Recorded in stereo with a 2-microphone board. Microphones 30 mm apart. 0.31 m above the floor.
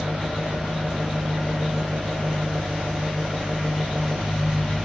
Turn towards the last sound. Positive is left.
turn(degrees=-75)  # may be behind; listen again after turning